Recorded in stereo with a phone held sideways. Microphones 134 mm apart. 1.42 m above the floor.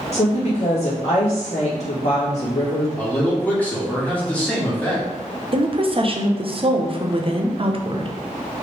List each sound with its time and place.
0.1 s a woman speaking: 50° left (ahead or behind), 2 m
3.0 s a man speaking: 10° left (ahead or behind), 1.9 m
5.5 s a woman speaking: 45° right (ahead or behind), 0.7 m